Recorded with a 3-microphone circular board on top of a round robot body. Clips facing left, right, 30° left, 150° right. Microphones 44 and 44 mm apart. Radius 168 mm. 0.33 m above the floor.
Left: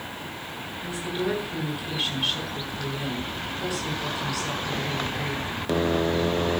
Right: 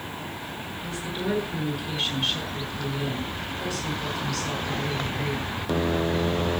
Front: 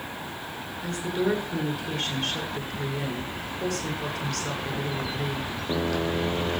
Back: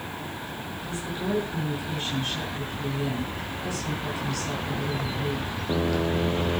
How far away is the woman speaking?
About 7 m.